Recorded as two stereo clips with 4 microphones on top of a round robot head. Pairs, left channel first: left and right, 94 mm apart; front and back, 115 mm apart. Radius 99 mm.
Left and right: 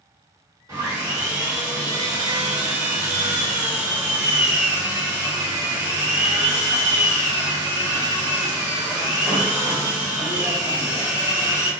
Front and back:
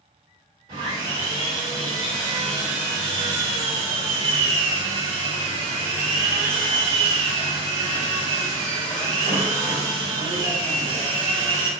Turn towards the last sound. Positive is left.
turn(degrees=-145)